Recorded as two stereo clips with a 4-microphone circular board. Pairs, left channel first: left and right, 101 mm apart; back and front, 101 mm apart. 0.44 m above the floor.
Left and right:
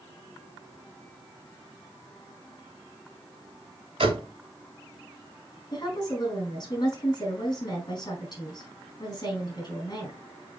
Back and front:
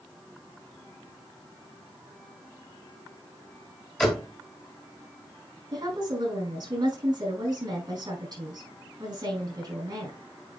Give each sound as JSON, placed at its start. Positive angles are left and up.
{"t": 4.0, "sound": "a door slam", "azimuth_deg": -95, "distance_m": 2.0}
{"t": 5.7, "sound": "a woman speaking", "azimuth_deg": 45, "distance_m": 4.0}